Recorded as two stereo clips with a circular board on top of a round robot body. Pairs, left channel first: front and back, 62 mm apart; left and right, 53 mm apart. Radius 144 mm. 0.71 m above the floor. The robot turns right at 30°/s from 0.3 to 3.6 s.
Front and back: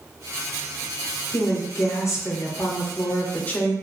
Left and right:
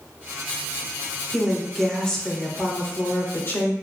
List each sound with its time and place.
1.3 s a woman speaking: 10° right, 0.9 m; by 3.7 s 60° left, 0.9 m